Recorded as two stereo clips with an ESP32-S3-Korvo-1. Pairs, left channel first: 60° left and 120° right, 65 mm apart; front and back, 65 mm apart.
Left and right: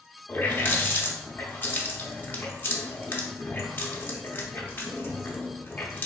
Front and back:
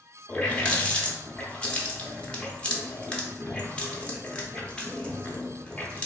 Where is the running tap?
55° left, 0.6 m.